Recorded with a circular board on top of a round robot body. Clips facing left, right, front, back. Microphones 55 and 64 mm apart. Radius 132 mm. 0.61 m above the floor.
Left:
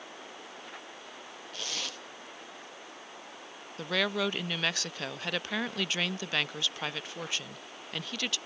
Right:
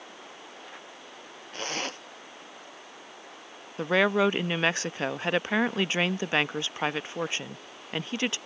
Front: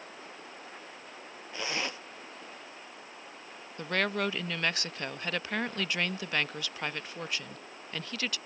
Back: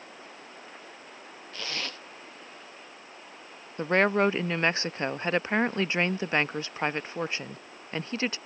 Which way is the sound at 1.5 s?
65° right.